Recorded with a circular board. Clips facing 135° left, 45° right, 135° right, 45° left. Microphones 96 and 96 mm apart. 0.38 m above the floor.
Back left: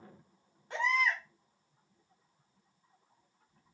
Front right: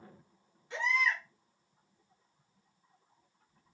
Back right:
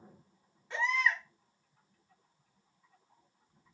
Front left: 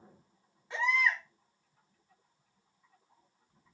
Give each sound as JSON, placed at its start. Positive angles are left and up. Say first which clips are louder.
{"t": 0.7, "sound": "a baby crying", "louder": "back left 1 dB, front left 1 dB", "azimuth_deg": 125, "distance_m": 1.3}